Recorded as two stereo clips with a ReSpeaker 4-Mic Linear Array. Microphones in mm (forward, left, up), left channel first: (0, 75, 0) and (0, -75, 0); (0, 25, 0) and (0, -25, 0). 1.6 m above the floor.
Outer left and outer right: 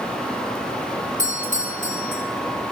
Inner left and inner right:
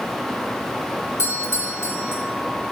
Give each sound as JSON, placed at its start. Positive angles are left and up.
{"t": 1.2, "sound": "a doorbell", "side_deg": 60, "distance_m": 1.8}